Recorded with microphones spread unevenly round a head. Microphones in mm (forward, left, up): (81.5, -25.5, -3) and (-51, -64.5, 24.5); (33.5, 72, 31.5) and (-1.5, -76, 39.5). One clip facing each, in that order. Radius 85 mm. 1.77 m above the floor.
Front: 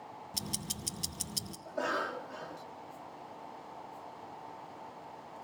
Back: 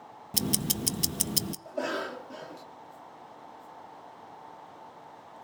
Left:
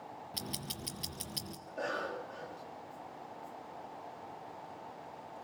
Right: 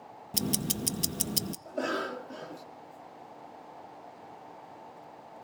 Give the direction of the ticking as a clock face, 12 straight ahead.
5 o'clock.